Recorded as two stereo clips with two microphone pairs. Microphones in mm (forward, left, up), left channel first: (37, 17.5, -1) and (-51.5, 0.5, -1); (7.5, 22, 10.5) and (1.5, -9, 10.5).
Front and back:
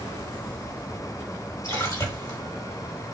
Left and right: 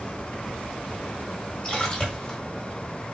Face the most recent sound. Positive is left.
turn(degrees=40)